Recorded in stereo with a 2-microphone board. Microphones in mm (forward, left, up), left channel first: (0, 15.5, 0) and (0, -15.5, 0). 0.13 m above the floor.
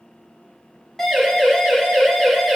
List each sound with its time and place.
1.0 s a siren: 15° left (ahead or behind), 9.5 m